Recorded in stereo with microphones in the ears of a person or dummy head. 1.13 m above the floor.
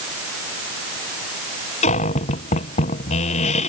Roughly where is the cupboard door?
Left.